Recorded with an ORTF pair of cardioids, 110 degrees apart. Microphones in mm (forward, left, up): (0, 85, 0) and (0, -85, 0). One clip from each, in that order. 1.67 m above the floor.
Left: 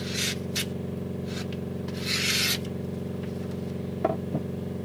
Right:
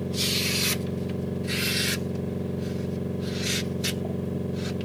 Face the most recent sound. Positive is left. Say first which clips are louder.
# right 4 dB
turn(degrees=-20)